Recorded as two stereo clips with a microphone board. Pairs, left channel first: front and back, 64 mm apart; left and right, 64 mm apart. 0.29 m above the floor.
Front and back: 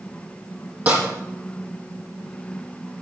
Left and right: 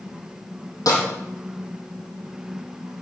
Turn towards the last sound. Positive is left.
turn(degrees=115)